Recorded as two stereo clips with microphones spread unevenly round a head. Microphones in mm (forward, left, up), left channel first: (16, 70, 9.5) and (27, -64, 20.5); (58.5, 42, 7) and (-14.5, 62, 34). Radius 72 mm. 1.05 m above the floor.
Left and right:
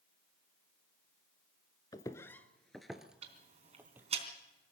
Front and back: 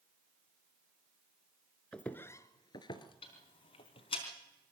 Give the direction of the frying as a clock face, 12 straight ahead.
No frying in this recording.